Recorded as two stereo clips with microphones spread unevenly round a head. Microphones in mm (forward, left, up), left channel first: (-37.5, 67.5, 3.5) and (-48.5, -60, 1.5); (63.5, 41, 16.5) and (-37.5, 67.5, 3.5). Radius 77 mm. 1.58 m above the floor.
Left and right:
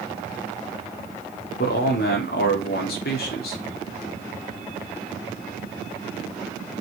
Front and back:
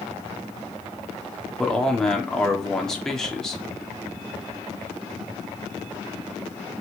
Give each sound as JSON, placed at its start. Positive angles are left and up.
{"t": 1.6, "sound": "a man speaking", "azimuth_deg": 70, "distance_m": 4.0}